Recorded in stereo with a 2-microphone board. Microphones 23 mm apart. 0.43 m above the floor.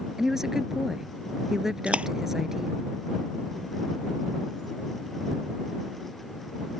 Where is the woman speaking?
15° right (ahead or behind).